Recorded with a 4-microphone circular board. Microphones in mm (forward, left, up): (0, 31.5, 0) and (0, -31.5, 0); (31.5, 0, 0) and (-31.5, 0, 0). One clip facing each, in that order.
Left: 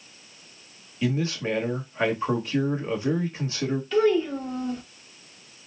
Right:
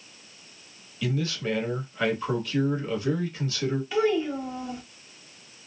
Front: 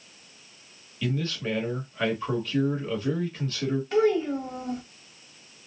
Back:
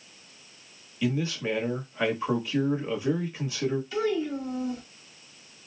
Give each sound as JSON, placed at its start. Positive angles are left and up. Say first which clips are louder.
{"t": 1.0, "sound": "a man speaking", "louder": "left 2 dB, back 2 dB", "azimuth_deg": 115, "distance_m": 1.2}
{"t": 3.9, "sound": "a child speaking", "louder": "left 4 dB, front 5 dB", "azimuth_deg": -10, "distance_m": 1.4}